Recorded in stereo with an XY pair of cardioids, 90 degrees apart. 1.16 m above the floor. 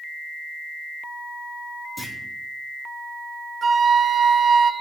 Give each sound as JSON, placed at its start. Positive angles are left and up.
{"t": 2.0, "sound": "a clunk", "azimuth_deg": 25, "distance_m": 2.5}
{"t": 3.6, "sound": "a flute", "azimuth_deg": -40, "distance_m": 0.7}